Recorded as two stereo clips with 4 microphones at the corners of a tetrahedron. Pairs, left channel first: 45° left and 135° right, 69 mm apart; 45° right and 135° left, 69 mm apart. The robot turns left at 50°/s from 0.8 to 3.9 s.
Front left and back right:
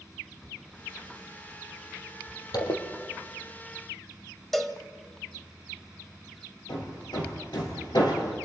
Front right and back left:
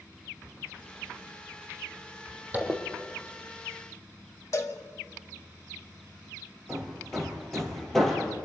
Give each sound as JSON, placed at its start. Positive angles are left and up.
{"t": 2.5, "sound": "a zipper", "azimuth_deg": 70, "distance_m": 3.5}
{"t": 4.5, "sound": "a cowbell", "azimuth_deg": -40, "distance_m": 1.6}
{"t": 6.7, "sound": "hammering", "azimuth_deg": 40, "distance_m": 5.0}